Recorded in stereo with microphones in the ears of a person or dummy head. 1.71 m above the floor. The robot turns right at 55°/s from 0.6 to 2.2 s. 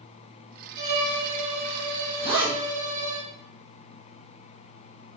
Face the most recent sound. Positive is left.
turn(degrees=-30)  # may be behind; listen again after turning